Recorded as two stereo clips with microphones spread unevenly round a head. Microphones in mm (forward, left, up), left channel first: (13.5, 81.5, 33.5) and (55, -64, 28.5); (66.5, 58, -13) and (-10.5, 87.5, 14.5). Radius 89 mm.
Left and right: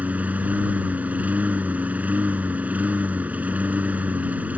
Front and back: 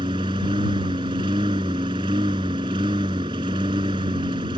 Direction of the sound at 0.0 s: 155° right.